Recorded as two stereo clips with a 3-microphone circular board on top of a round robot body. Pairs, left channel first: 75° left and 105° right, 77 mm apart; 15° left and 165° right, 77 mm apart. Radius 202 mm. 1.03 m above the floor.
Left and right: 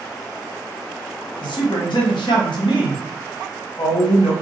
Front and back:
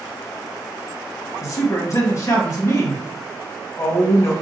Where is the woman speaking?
65° left, 1.4 m.